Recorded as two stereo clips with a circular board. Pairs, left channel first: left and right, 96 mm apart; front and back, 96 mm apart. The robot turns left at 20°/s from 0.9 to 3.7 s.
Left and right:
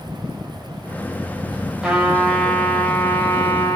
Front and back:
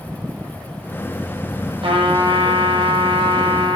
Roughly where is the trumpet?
Behind.